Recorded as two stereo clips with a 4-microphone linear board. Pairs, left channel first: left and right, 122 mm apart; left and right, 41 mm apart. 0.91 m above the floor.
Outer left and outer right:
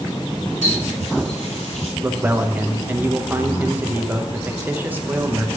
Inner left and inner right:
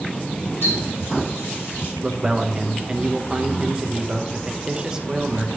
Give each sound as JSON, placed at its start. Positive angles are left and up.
{"t": 0.6, "sound": "a running tap", "side_deg": 80, "distance_m": 2.5}
{"t": 2.0, "sound": "a man speaking", "side_deg": -15, "distance_m": 0.7}